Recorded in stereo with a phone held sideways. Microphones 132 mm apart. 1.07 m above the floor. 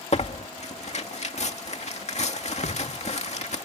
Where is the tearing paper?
55° left (ahead or behind).